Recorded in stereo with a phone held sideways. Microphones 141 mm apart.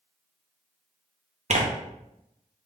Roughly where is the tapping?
No tapping in this recording.